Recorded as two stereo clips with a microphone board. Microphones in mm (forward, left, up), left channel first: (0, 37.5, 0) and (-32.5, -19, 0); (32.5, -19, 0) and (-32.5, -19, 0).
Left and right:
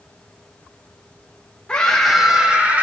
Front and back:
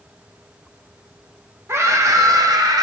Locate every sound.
1.7 s a scream: 135° left, 1.1 m; by 2.8 s 175° left, 1.3 m